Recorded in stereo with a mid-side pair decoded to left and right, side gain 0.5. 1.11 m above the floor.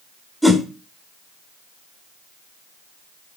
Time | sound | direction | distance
0.4 | a whoosh | 5° right | 1.4 m